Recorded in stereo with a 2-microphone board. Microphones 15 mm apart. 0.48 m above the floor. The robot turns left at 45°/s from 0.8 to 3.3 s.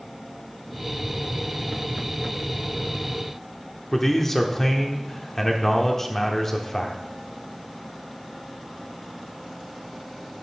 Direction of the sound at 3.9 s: 20° left (ahead or behind).